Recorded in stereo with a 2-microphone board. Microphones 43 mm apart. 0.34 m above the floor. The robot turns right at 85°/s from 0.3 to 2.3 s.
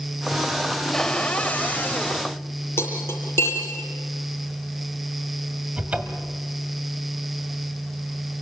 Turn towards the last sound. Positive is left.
turn(degrees=-30)  # may be behind; listen again after turning